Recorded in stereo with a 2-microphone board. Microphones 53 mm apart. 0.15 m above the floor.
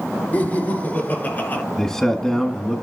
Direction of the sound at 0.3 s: 30° left (ahead or behind).